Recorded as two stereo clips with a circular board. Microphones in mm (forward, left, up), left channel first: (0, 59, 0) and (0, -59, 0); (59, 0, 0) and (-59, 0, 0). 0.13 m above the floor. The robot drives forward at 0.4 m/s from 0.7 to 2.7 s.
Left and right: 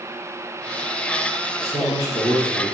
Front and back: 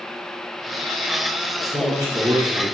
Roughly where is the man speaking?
Behind left.